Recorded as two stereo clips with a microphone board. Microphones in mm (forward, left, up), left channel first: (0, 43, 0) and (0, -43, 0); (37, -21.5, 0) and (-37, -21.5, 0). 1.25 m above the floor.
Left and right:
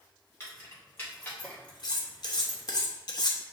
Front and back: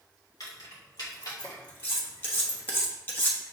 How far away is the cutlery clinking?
About 0.8 m.